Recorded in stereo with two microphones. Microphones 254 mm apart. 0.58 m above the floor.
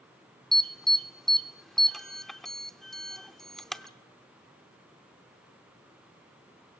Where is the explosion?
I don't hear an explosion.